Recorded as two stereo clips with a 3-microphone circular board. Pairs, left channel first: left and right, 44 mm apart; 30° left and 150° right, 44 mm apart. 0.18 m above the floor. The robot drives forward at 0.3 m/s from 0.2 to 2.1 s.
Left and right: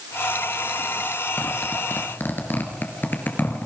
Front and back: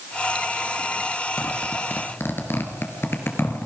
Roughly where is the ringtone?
No ringtone in this recording.